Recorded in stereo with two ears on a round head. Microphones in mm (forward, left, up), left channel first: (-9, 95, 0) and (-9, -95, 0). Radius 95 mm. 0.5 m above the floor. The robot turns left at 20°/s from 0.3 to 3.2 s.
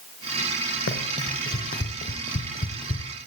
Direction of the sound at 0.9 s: 55° left (ahead or behind).